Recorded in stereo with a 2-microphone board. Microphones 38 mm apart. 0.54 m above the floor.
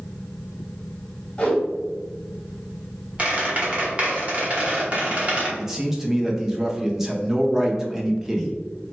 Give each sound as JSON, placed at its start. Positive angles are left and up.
{"t": 1.4, "sound": "a whoosh", "side_deg": 20, "distance_m": 1.4}
{"t": 3.2, "sound": "a squeak", "side_deg": -30, "distance_m": 1.2}
{"t": 5.6, "sound": "a man speaking", "side_deg": -10, "distance_m": 0.6}